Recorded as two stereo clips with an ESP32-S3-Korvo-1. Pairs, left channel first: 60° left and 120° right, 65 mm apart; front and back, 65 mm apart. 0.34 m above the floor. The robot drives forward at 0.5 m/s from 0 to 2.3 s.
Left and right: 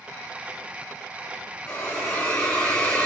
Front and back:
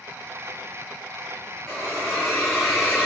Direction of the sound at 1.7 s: 75° left.